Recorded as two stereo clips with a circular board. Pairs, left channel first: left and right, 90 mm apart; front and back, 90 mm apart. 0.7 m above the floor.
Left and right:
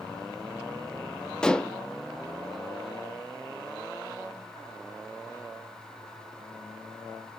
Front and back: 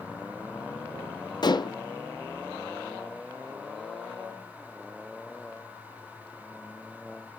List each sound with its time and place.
1.4 s dishes clattering: 10° left, 0.6 m